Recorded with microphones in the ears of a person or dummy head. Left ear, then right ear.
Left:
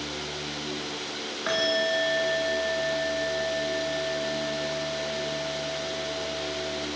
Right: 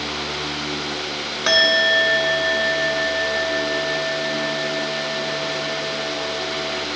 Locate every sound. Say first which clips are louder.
1.5 s a bell: right 10 dB; 85° right, 1.9 m